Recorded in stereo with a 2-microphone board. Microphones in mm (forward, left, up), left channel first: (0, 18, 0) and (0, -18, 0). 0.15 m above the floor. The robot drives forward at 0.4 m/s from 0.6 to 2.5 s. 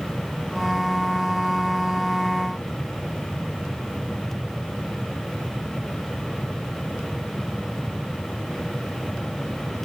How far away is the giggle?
No giggle in this recording.